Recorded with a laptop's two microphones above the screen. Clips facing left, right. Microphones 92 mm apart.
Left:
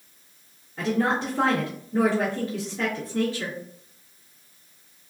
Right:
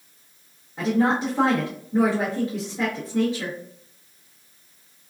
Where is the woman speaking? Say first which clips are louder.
Right 3 dB; 15° right (ahead or behind), 0.9 m.